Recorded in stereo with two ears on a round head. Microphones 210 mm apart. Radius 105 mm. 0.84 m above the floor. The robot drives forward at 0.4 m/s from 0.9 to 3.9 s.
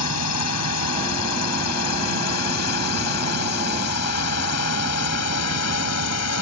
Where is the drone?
75° left (ahead or behind).